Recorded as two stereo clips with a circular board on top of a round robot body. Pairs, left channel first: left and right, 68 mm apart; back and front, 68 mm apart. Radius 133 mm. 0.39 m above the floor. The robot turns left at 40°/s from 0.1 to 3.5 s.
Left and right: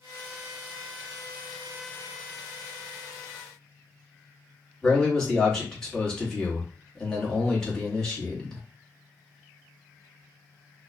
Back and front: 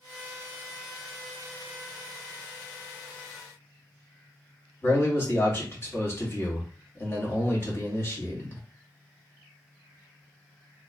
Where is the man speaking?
165° left, 1.3 m.